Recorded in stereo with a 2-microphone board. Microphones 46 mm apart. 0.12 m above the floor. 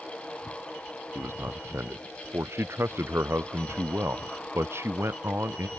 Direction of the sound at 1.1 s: 65° right (ahead or behind).